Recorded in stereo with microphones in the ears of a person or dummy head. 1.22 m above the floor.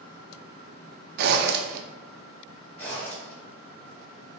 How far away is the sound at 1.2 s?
About 0.5 m.